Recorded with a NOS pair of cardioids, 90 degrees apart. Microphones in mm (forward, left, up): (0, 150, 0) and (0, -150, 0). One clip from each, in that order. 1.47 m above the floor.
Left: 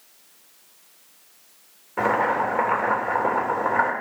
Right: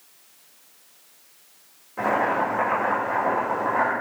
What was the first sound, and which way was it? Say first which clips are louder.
Boiling: left 1 dB; 40° left.